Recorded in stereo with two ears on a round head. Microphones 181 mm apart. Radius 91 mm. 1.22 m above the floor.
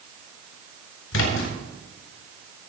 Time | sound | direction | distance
1.1 | a splash | 75° left (ahead or behind) | 6 m